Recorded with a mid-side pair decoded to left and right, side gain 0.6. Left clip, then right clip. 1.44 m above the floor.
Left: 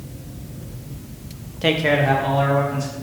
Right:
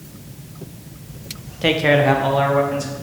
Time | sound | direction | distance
1.6 | a man speaking | straight ahead | 0.6 m